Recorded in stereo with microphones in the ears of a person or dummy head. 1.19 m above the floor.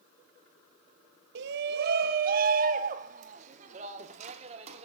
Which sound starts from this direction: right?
A shout, at 1.4 s.